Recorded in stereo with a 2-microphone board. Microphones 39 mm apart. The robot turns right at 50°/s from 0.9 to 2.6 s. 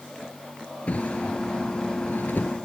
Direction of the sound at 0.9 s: 40° left (ahead or behind).